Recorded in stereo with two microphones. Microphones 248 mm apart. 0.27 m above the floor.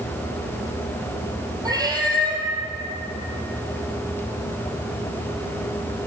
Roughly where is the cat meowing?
Centre.